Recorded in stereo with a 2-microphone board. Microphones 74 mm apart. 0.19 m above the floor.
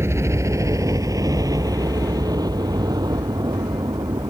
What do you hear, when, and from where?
0.0 s a helicopter: 40° right (ahead or behind); by 4.3 s 70° right (ahead or behind)